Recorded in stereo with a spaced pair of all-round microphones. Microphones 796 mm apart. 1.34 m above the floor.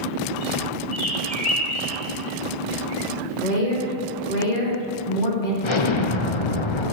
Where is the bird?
60° left (ahead or behind), 4 m.